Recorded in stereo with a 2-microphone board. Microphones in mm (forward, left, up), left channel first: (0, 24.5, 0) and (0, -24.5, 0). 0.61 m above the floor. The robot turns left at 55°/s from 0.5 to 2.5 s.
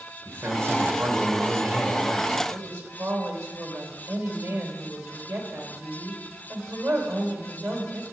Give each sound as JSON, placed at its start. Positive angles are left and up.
{"t": 0.2, "sound": "a man speaking", "azimuth_deg": -70, "distance_m": 2.5}
{"t": 2.5, "sound": "a woman speaking", "side_deg": -60, "distance_m": 2.5}